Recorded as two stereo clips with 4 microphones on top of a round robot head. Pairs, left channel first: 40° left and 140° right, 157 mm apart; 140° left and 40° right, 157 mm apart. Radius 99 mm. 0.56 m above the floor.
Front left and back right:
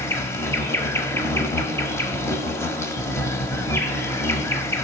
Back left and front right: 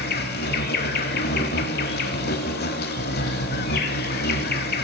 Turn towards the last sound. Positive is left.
turn(degrees=115)